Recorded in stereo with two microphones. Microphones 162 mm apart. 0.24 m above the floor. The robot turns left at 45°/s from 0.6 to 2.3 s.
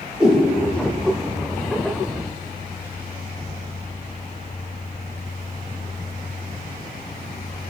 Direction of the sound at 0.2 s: 5° right (ahead or behind).